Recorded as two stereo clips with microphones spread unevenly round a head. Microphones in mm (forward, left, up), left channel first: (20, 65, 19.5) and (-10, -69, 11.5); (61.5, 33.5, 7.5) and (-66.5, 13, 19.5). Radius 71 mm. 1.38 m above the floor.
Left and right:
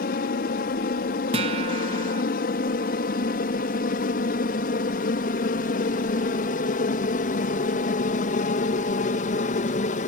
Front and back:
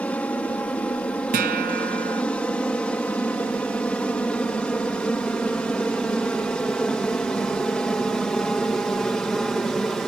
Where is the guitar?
155° right.